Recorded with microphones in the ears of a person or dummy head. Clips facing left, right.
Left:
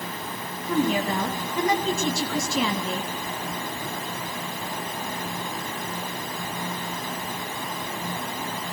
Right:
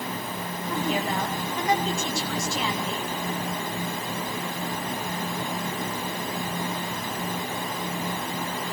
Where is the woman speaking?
85° left, 2.5 m.